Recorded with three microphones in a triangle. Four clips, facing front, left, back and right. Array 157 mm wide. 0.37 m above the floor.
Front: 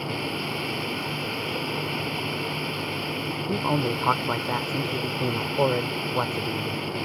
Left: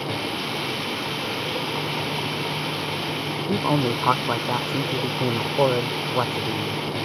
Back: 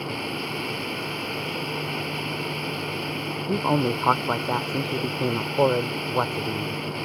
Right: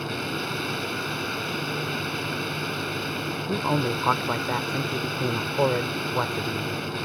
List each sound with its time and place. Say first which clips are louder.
0.0 s running water: left 2 dB, even; 90° left
3.5 s a man speaking: left 3 dB, back 3 dB; 140° left